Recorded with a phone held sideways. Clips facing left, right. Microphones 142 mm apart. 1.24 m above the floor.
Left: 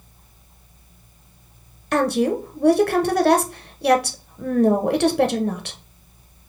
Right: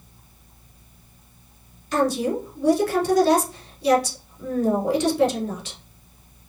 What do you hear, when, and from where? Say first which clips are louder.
1.9 s a woman speaking: left 2 dB; 60° left (ahead or behind), 0.7 m